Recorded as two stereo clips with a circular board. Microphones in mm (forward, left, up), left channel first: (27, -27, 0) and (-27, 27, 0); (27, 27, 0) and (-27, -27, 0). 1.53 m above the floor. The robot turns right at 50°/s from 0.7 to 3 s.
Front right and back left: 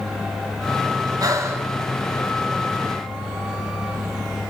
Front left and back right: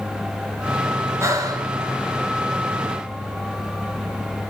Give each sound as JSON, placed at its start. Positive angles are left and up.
{"t": 1.2, "sound": "breathing", "azimuth_deg": 170, "distance_m": 1.7}